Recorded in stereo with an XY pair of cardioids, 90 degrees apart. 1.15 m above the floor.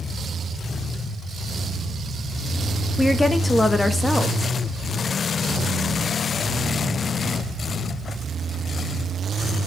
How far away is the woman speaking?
About 2.0 m.